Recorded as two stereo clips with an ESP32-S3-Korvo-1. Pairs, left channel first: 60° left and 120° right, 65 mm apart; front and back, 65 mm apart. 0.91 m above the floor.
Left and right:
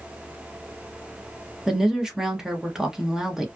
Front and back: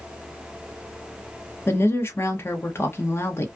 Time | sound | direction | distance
1.7 | a woman speaking | 40° right | 0.7 m